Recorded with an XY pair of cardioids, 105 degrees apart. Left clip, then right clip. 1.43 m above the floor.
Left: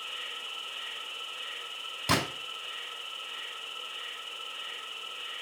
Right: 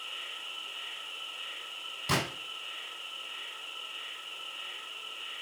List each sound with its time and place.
0.0 s an insect: 50° left, 1.7 m
2.1 s a gunshot: 65° left, 2.5 m